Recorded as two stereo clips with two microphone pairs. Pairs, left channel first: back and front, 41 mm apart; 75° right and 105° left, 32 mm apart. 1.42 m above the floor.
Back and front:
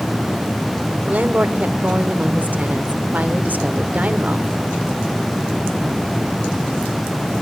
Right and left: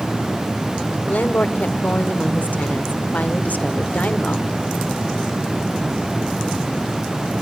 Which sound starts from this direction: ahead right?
A woman speaking, at 1.1 s.